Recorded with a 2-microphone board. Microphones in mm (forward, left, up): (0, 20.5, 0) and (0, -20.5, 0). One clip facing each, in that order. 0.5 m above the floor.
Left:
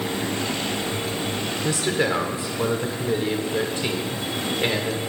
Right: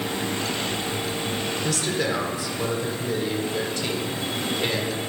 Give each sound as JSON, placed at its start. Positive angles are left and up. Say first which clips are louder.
{"t": 1.6, "sound": "a man speaking", "louder": "left 4 dB", "side_deg": 25, "distance_m": 1.8}